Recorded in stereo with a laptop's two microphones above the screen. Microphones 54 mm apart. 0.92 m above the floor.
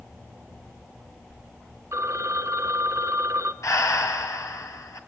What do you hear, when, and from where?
1.9 s a phone ringing: 70° right (ahead or behind), 1.2 m
3.6 s breathing: 75° left (ahead or behind), 2.5 m